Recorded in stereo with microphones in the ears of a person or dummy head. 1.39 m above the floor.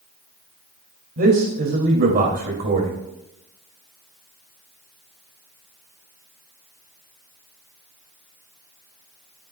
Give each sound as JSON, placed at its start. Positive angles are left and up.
{"t": 1.2, "sound": "a man speaking", "side_deg": -40, "distance_m": 2.5}